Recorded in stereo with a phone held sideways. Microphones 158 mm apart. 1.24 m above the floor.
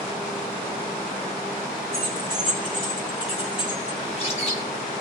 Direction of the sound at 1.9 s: 70° left (ahead or behind).